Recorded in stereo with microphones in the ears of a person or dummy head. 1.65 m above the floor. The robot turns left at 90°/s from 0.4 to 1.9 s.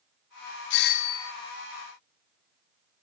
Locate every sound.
0.7 s a doorbell: 65° left, 0.7 m; by 1.3 s 10° left, 0.7 m